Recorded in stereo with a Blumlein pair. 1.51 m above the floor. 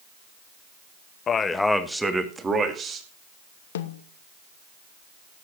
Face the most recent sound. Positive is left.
turn(degrees=60)